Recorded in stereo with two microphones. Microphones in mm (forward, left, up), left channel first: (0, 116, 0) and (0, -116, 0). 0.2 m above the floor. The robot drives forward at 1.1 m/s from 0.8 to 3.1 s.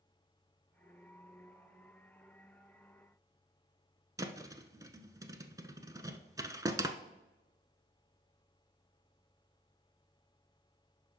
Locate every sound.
4.2 s a thud: 15° right (ahead or behind), 0.7 m